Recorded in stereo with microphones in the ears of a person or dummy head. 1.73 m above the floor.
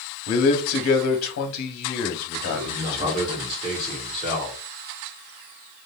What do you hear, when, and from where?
0.3 s a man speaking: 85° left, 1.0 m
2.5 s a man speaking: 30° right (ahead or behind), 1.4 m